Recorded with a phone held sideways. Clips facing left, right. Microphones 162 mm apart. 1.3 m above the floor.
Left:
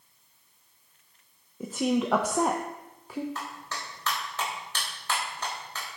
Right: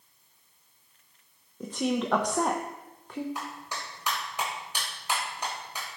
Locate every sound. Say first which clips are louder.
1.6 s a woman speaking: left 2 dB; 5° left (ahead or behind), 0.9 m
3.4 s a clap: even; 15° right (ahead or behind), 4 m